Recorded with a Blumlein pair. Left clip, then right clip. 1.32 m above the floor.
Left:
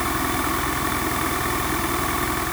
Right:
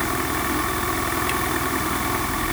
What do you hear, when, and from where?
Only background noise.